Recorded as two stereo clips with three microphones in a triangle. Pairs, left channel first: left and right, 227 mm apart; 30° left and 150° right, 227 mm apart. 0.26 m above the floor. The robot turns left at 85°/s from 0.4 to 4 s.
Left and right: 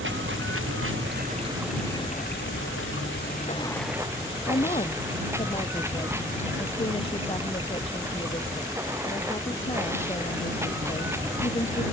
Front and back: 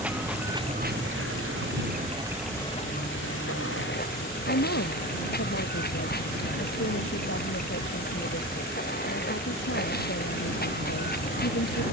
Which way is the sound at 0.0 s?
65° right.